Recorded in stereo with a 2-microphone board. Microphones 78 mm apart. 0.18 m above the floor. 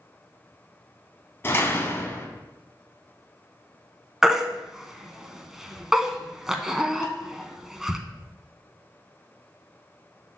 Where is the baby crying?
5° right (ahead or behind), 0.6 m.